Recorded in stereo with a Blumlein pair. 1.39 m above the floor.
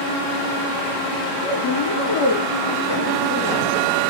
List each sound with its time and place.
1.4 s a woman speaking: 40° left, 1.0 m